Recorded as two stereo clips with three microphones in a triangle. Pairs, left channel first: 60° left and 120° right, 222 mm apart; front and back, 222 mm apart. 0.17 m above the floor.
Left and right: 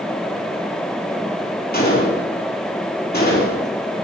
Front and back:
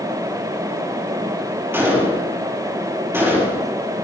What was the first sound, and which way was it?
A gunshot, 100° left.